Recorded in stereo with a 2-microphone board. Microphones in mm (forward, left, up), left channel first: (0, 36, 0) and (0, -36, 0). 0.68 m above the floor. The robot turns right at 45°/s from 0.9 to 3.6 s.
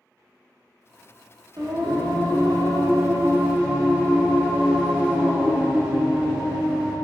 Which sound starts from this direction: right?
Singing, at 1.6 s.